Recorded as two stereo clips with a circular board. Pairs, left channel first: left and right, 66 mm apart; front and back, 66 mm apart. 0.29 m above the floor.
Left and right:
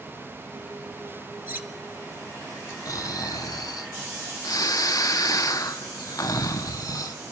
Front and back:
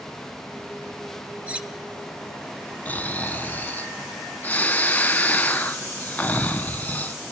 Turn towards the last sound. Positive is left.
turn(degrees=65)